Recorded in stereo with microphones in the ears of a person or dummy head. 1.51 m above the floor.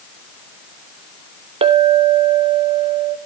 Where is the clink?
30° right (ahead or behind), 1.0 m.